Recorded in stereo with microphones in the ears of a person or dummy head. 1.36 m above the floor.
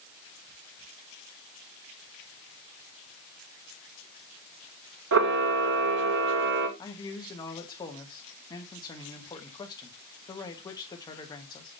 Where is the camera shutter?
65° right (ahead or behind), 1.3 m.